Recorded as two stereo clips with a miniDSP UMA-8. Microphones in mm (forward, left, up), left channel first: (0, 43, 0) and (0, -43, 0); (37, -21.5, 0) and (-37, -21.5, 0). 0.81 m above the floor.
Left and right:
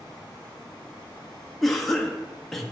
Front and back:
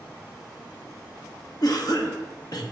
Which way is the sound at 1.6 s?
5° left.